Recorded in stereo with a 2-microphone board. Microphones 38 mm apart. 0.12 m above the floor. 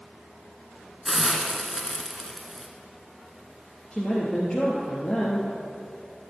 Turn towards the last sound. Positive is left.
turn(degrees=25)  # may be behind; listen again after turning